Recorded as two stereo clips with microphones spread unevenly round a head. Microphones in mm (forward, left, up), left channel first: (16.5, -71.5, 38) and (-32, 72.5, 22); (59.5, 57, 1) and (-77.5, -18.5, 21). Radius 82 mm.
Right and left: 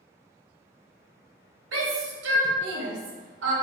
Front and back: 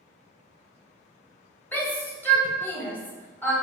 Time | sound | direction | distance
1.7 | a shout | 110° left | 1.0 m